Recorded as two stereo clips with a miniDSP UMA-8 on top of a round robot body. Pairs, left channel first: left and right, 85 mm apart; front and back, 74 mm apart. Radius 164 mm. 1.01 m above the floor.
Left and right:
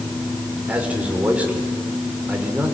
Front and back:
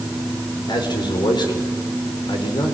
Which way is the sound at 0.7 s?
15° right.